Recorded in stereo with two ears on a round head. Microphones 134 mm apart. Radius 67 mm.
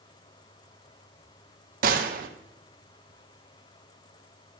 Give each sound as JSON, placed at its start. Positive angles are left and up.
{"t": 1.8, "sound": "a gunshot", "side_deg": -65, "distance_m": 1.1}